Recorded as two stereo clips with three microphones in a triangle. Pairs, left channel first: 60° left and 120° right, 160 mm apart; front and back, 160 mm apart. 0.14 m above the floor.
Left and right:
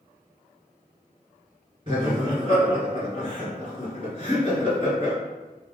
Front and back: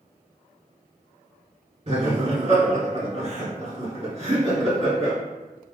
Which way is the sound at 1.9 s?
155° right.